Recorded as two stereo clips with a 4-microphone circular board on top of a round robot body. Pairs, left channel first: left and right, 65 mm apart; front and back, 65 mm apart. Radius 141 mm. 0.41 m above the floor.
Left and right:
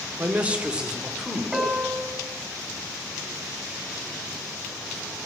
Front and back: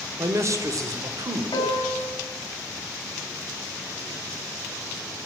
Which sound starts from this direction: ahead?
A piano, at 1.5 s.